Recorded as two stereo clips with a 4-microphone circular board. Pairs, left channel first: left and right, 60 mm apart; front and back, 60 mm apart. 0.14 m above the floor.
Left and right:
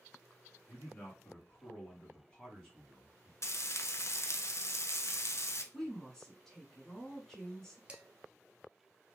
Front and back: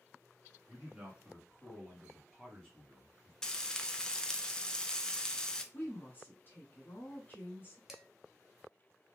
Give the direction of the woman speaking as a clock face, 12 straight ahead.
12 o'clock.